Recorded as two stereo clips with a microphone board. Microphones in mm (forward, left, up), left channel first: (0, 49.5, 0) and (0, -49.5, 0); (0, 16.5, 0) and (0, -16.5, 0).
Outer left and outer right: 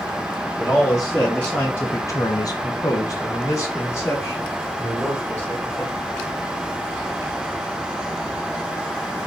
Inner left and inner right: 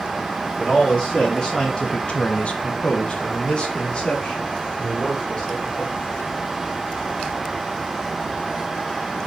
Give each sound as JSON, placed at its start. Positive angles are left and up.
{"t": 0.6, "sound": "a man speaking", "side_deg": 5, "distance_m": 1.0}